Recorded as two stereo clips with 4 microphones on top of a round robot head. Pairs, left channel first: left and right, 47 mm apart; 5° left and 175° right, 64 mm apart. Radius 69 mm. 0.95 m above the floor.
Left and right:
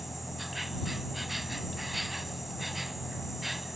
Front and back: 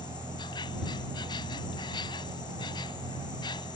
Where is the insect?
Straight ahead.